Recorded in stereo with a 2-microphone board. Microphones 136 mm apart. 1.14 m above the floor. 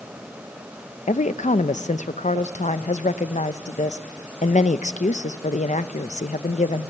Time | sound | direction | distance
1.1 | a woman speaking | 60° left (ahead or behind) | 0.7 m